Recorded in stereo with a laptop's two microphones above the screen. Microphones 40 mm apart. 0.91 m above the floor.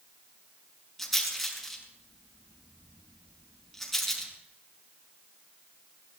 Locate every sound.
1.0 s a rattle: 10° left (ahead or behind), 6.5 m